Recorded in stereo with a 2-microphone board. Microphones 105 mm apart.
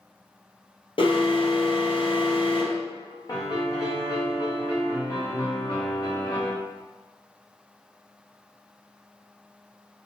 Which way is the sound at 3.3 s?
35° left (ahead or behind).